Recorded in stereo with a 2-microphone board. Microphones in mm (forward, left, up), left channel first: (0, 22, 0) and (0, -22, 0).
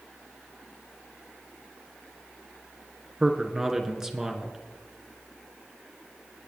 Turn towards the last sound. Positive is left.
turn(degrees=-15)  # may be behind; listen again after turning